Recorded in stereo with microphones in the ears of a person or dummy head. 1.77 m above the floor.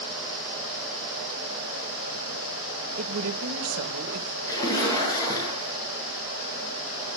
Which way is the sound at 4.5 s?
20° left (ahead or behind).